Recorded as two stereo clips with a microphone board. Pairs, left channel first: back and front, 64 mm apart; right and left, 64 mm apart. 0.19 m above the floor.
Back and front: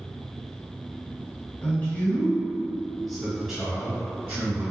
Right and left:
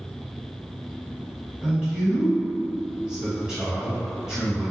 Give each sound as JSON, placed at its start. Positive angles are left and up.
{"t": 1.6, "sound": "a man speaking", "azimuth_deg": 160, "distance_m": 1.8}